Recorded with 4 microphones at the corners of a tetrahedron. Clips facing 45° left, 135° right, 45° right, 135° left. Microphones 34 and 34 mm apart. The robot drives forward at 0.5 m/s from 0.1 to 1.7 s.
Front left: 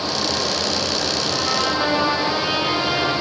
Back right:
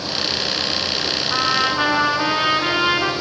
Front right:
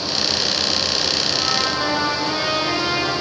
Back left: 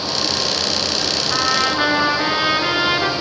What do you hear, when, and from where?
1.3 s a trumpet: straight behind, 2.5 m